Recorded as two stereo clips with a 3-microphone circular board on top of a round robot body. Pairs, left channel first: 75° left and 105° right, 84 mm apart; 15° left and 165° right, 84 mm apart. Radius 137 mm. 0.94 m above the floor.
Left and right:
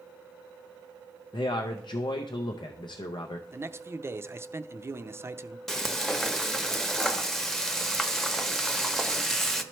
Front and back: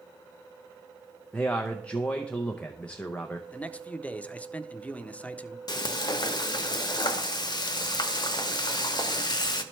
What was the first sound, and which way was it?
A man speaking, 90° left.